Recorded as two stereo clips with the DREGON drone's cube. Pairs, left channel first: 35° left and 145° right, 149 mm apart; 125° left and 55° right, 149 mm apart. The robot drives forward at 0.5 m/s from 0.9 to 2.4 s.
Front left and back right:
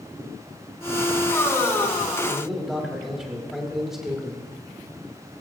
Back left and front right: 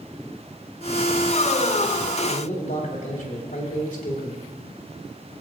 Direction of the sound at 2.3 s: 125° left.